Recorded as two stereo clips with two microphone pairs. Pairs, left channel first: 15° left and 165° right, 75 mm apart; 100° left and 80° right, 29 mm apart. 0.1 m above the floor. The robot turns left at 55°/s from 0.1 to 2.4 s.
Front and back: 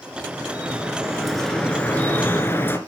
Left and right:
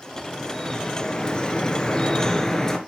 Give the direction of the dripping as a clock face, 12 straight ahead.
7 o'clock.